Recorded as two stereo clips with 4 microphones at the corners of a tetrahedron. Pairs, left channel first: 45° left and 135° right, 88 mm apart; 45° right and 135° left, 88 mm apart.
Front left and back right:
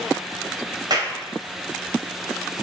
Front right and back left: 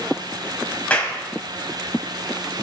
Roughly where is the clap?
Behind right.